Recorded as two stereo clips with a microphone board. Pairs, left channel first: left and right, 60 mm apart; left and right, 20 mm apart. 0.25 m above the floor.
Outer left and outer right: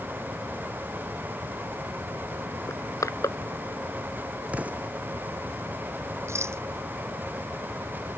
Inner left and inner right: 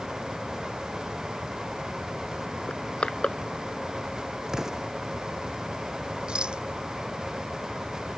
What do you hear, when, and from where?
2.7 s crushing: 70° left (ahead or behind)
4.5 s an explosion: 25° right (ahead or behind)
6.3 s a rattle: 50° right (ahead or behind)